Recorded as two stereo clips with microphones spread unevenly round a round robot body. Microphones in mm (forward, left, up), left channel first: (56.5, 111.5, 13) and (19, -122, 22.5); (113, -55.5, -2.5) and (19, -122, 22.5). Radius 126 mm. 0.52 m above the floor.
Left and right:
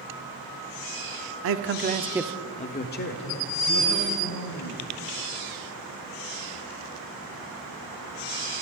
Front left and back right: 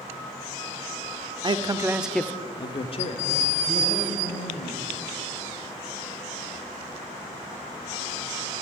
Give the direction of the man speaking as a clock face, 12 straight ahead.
3 o'clock.